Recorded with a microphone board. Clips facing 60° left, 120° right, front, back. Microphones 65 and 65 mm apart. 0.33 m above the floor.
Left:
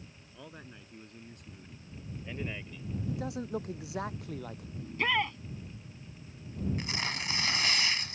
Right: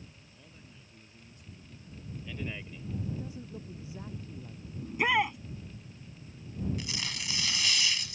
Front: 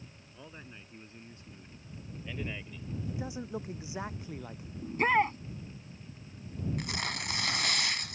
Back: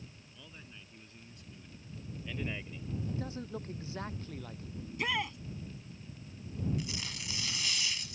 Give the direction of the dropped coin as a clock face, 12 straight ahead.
No dropped coin in this recording.